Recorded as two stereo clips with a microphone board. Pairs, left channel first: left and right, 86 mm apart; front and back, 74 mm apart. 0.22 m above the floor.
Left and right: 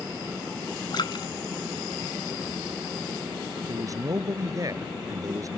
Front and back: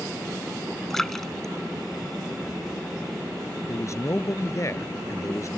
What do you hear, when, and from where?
0.9 s a splash: 85° left
3.7 s a man speaking: 45° right